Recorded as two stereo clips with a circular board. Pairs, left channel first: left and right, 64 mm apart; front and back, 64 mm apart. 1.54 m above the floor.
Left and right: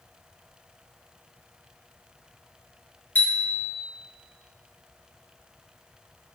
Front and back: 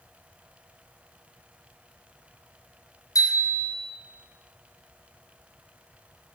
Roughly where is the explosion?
I don't hear an explosion.